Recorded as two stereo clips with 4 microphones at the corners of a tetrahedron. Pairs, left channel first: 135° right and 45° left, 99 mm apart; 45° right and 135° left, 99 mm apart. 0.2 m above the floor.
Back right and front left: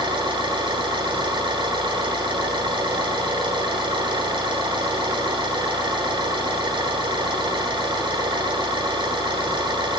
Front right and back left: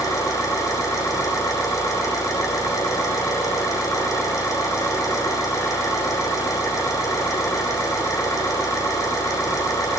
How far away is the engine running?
About 9.5 m.